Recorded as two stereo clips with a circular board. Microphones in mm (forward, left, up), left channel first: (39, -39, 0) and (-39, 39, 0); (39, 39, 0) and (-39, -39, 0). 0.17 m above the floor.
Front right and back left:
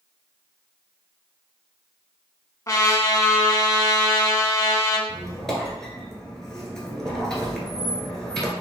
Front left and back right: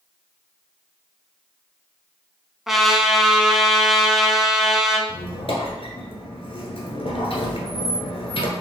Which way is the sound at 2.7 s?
50° right.